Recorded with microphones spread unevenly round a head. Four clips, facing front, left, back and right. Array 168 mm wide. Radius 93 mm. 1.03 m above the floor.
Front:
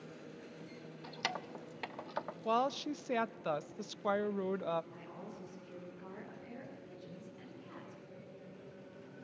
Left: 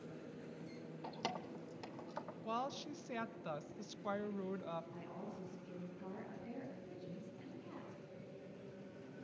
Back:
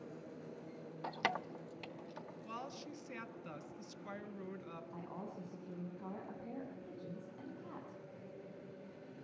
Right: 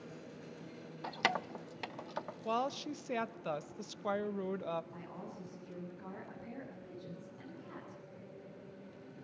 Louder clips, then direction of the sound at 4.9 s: Right 1 dB, back 1 dB; 175° left.